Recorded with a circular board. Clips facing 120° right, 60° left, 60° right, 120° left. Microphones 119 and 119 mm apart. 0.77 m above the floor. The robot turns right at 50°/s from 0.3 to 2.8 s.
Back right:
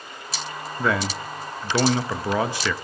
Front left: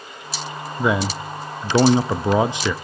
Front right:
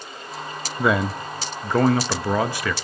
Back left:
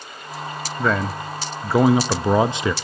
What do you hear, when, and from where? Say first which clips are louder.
0.8 s a man speaking: front left 3 dB, front right 1 dB; 10° left, 0.5 m; by 2.7 s 105° left, 0.5 m